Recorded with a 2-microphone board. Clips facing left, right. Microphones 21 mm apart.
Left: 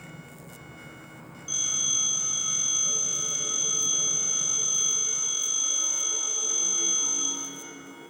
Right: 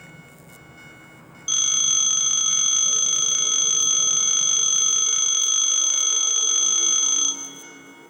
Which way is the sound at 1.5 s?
60° right (ahead or behind).